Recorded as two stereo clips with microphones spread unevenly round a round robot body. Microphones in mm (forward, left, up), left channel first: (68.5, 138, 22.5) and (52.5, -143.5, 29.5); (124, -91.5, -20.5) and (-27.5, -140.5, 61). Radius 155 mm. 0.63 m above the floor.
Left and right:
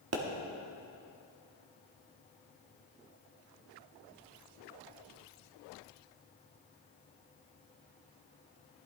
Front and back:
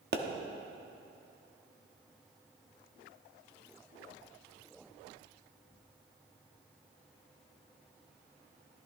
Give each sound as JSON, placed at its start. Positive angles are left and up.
{"t": 0.1, "sound": "a pop", "azimuth_deg": -120, "distance_m": 1.2}